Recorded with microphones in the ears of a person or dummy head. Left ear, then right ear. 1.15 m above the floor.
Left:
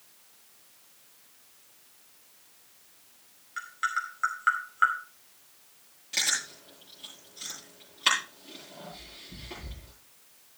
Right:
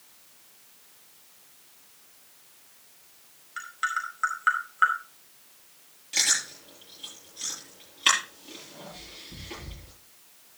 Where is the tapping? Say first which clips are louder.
Right 1 dB; 5° right (ahead or behind), 2.5 m.